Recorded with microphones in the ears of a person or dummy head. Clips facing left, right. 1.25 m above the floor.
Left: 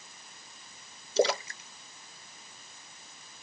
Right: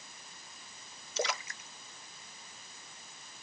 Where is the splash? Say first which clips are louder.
Left 10 dB; 30° left (ahead or behind).